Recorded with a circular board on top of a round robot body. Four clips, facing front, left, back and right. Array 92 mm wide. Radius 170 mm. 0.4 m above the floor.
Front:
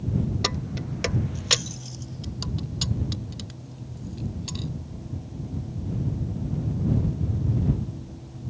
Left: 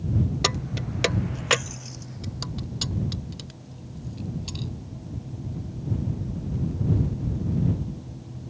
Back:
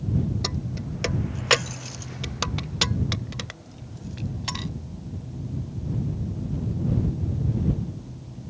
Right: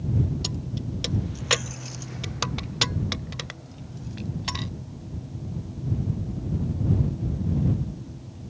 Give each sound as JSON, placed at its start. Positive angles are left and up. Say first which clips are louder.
{"t": 0.4, "sound": "keys jangling", "louder": "left 4 dB, front 1 dB", "azimuth_deg": 70}